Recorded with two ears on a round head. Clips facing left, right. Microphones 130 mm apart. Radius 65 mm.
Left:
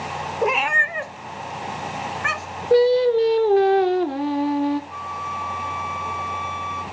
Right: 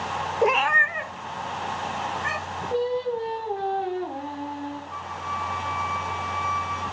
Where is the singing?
80° left, 1.5 m.